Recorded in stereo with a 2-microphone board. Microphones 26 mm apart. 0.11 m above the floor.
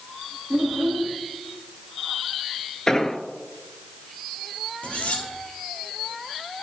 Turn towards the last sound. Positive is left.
turn(degrees=55)  # may be behind; listen again after turning